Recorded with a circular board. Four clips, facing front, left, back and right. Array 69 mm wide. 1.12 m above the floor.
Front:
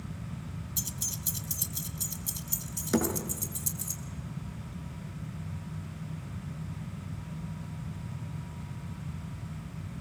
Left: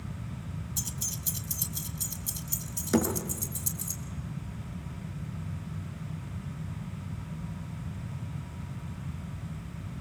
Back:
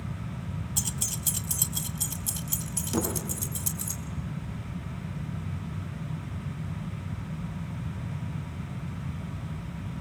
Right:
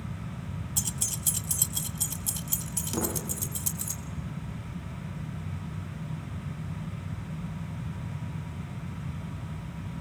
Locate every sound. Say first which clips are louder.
0.8 s keys jangling: right 3 dB, back 5 dB; 150° right, 0.7 m; by 3.9 s 130° right, 2.5 m
2.9 s a thud: left 6 dB, front 2 dB; 50° left, 9.5 m